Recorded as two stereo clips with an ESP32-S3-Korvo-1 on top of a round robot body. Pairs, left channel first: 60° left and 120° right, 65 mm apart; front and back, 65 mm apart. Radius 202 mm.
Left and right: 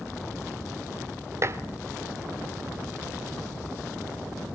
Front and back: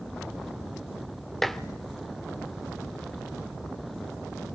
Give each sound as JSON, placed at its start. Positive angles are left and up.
{"t": 1.4, "sound": "dishes clattering", "azimuth_deg": -85, "distance_m": 1.2}